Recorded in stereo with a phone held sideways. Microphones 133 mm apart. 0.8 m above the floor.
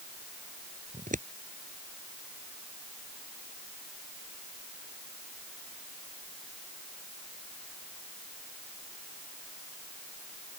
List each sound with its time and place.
0.9 s scissors: 80° right